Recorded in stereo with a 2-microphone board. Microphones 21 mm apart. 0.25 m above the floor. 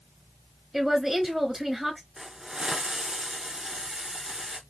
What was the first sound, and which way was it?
A woman speaking, 20° right (ahead or behind).